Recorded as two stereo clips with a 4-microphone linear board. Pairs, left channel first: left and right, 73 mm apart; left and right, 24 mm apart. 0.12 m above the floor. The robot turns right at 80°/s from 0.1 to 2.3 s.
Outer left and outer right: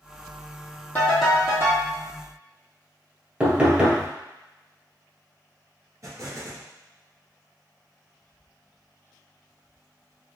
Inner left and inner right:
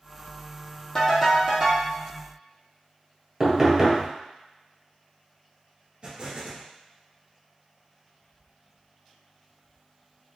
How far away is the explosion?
About 1.3 m.